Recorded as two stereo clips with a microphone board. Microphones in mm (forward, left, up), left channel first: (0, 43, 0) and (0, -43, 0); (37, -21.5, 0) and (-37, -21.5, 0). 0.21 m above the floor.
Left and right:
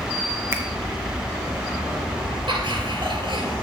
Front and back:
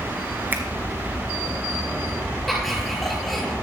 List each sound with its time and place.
0.5 s a finger snap: 130° right, 1.3 m
2.5 s laughter: 90° right, 3.5 m